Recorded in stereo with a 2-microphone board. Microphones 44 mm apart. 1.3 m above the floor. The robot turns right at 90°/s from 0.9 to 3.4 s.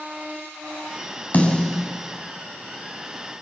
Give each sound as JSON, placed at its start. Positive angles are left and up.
{"t": 1.3, "sound": "a snare drum", "side_deg": 40, "distance_m": 5.0}